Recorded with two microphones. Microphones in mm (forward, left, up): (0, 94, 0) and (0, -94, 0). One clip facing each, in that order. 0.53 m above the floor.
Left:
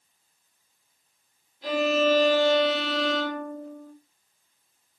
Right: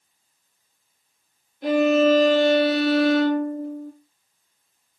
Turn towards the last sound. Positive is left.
turn(degrees=-65)  # may be behind; listen again after turning